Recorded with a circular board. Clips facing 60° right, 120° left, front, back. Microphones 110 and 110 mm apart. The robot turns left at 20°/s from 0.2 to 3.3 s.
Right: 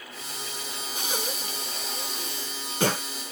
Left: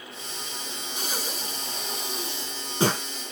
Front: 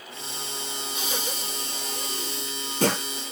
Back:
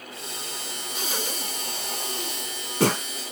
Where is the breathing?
130° right, 2 m; by 3.0 s 170° right, 2 m.